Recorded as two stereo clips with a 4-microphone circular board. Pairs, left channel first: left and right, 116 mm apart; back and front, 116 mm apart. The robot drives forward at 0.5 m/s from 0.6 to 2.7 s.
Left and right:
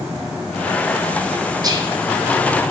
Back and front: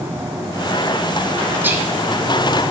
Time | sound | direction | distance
1.6 | whispering | 65° right | 1.4 m